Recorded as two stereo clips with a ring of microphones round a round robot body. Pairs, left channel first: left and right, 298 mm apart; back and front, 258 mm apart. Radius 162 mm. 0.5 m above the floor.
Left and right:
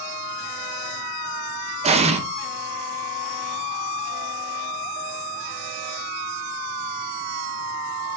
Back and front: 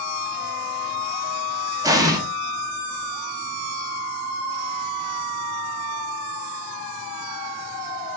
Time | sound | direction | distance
1.8 | an explosion | 55° right | 0.9 m